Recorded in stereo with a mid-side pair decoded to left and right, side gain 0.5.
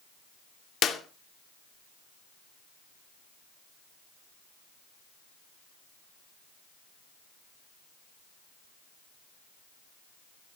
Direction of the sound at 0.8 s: 50° left.